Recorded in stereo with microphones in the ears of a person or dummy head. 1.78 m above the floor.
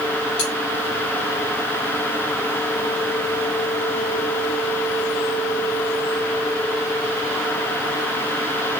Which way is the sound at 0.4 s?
65° left (ahead or behind).